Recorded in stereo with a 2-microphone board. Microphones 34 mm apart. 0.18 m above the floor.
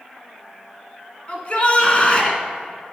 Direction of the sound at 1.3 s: 35° left (ahead or behind).